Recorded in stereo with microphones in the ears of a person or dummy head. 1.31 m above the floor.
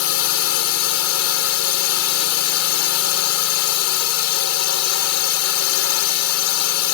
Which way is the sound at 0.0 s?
80° left.